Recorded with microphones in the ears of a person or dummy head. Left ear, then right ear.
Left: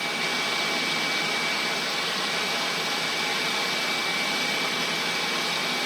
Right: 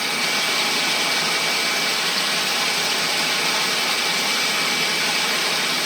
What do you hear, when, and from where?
0.0 s running water: 20° right (ahead or behind), 1.4 m